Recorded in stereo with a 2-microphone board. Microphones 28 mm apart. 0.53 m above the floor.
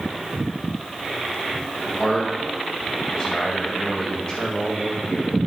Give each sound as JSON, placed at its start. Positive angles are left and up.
{"t": 2.0, "sound": "a man speaking", "side_deg": 25, "distance_m": 4.0}